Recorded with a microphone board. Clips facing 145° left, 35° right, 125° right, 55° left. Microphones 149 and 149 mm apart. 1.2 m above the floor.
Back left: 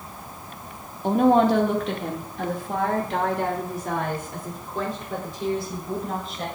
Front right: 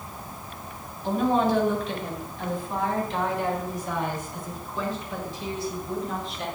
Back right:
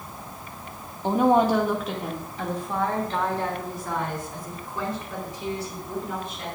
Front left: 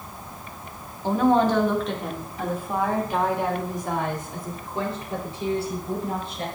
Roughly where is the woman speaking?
Behind.